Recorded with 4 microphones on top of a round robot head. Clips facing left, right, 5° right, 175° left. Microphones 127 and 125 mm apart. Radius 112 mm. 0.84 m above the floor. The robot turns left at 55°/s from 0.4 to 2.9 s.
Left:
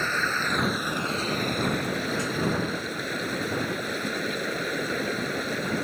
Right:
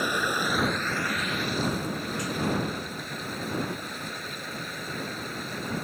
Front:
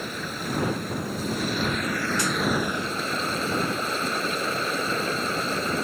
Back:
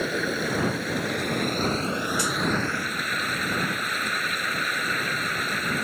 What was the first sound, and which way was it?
Running water, 165° right.